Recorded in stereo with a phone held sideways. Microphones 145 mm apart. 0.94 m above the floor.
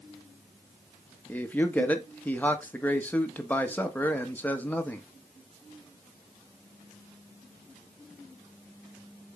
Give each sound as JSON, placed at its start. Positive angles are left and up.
{"t": 1.3, "sound": "a man speaking", "side_deg": 10, "distance_m": 1.3}